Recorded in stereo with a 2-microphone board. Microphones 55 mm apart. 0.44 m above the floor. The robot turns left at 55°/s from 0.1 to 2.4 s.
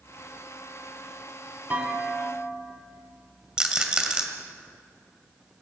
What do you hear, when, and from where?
1.7 s a clunk: 140° right, 2.5 m; by 2.6 s straight behind, 2.5 m
3.6 s a rattle: 20° right (ahead or behind), 1.9 m